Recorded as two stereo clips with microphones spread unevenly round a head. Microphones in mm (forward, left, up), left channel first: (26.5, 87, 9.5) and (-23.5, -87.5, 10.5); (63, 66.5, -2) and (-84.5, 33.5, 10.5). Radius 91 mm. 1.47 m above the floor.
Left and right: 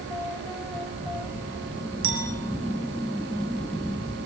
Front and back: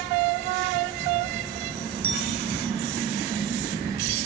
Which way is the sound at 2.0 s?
130° right.